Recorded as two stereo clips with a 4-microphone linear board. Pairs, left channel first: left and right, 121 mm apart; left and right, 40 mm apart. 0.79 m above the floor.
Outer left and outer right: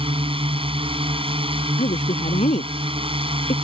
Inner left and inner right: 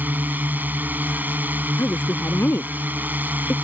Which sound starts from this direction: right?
A drone, at 0.0 s.